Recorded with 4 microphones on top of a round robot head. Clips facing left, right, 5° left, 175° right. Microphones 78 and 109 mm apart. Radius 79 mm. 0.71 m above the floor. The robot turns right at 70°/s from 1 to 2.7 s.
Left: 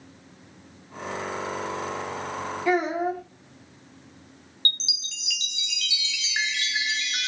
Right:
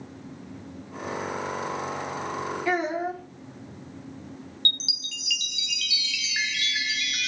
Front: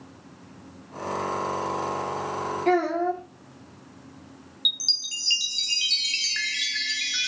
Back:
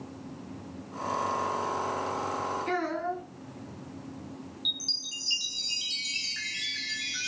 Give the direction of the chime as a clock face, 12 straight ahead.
11 o'clock.